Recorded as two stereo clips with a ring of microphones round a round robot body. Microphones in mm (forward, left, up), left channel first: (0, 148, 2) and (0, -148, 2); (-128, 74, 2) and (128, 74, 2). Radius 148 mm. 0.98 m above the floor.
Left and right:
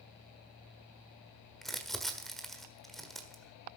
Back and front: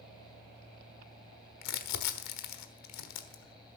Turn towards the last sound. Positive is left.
turn(degrees=180)